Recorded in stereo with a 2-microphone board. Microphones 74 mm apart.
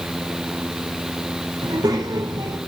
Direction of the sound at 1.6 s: 65° right (ahead or behind).